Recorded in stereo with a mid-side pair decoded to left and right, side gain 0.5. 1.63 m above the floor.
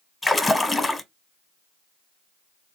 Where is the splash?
15° left, 0.9 m.